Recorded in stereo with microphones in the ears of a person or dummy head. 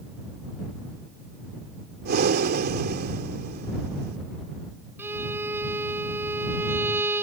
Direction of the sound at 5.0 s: 15° right (ahead or behind).